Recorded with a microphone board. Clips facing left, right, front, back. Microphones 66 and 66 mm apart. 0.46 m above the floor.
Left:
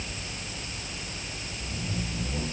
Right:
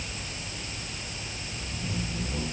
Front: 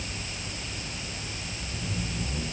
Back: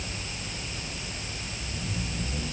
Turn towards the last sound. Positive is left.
No sound to turn to.